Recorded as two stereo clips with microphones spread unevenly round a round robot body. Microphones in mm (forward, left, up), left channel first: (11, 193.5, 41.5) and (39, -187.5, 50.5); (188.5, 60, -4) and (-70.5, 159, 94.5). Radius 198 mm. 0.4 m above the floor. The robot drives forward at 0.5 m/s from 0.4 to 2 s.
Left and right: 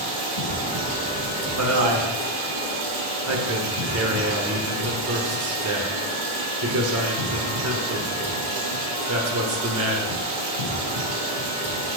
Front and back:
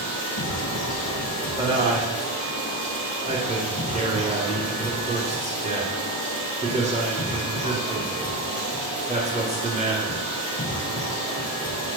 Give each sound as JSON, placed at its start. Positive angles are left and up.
{"t": 0.0, "sound": "running water", "azimuth_deg": -70, "distance_m": 2.5}
{"t": 1.6, "sound": "a man speaking", "azimuth_deg": -105, "distance_m": 1.1}